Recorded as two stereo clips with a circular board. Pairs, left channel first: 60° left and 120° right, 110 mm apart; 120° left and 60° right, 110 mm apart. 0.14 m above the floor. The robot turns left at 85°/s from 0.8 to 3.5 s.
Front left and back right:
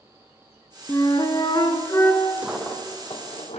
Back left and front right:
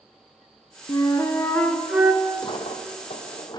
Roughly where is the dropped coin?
Behind.